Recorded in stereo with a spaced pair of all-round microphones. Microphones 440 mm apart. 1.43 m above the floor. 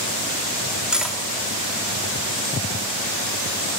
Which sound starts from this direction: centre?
Cutlery clinking, at 0.9 s.